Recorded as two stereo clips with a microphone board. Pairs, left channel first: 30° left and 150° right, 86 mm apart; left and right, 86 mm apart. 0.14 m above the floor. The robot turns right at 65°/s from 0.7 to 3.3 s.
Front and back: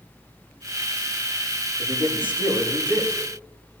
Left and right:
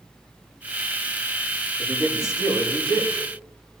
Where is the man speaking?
160° right, 9 m; by 3.1 s 75° right, 9 m.